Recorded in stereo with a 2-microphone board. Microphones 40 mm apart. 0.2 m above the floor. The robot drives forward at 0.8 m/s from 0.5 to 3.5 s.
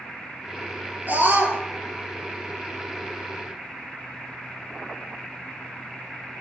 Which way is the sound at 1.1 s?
50° right (ahead or behind).